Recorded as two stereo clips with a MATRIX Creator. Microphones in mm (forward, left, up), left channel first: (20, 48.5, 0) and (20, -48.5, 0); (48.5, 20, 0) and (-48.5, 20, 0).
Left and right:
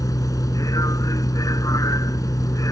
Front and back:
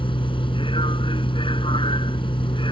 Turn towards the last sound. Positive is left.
turn(degrees=35)